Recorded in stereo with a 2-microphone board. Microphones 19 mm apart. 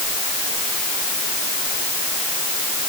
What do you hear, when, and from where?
Only background noise.